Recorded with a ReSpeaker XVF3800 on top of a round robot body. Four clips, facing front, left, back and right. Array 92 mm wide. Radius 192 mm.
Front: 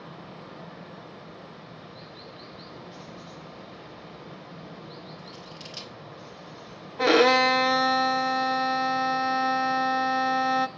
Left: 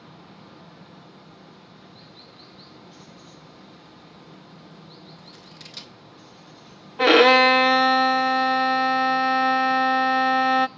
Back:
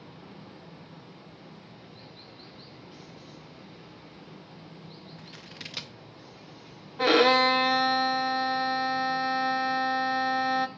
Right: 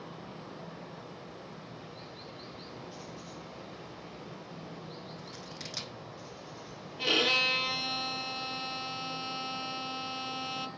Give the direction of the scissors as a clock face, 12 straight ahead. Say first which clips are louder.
Right 1 dB, front 3 dB; 5 o'clock.